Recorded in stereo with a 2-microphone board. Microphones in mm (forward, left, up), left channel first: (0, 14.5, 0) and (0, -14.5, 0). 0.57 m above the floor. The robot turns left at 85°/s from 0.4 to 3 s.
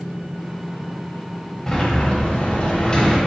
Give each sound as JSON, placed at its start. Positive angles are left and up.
{"t": 1.7, "sound": "a sliding door", "azimuth_deg": 160, "distance_m": 1.3}